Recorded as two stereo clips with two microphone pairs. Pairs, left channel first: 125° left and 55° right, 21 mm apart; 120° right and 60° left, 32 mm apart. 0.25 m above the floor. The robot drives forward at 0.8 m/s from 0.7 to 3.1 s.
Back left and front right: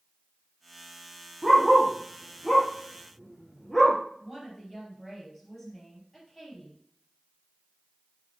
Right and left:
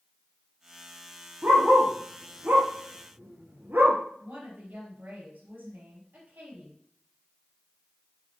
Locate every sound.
1.4 s a dog barking: 35° left, 3.5 m; by 4.0 s 55° left, 2.5 m
4.2 s a woman speaking: 50° left, 5 m